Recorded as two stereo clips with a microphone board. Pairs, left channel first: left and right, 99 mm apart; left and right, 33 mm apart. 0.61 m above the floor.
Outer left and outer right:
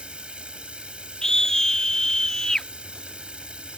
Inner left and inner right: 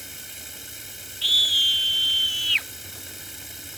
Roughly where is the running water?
Centre.